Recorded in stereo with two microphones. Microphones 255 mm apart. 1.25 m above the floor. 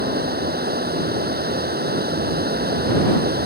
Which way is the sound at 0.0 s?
35° right (ahead or behind).